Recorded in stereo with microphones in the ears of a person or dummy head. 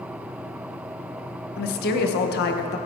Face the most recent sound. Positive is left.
turn(degrees=50)  # may be behind; listen again after turning